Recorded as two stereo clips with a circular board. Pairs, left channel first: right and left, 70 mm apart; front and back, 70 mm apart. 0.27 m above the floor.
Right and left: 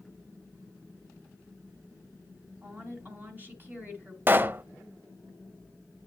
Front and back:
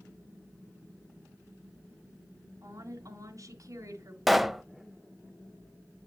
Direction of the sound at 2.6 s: 150° left.